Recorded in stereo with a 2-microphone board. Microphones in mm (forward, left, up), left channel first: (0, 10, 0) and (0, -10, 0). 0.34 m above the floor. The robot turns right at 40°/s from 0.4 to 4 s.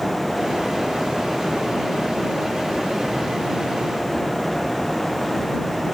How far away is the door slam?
I don't hear a door slam.